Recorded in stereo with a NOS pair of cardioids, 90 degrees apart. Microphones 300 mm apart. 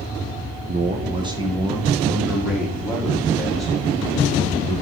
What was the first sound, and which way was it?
A man speaking, 30° right.